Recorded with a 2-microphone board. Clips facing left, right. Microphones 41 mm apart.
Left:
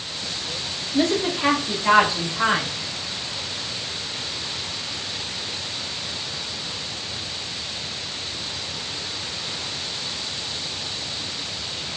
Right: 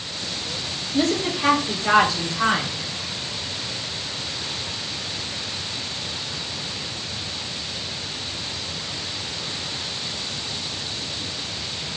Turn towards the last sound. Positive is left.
turn(degrees=15)  # may be behind; listen again after turning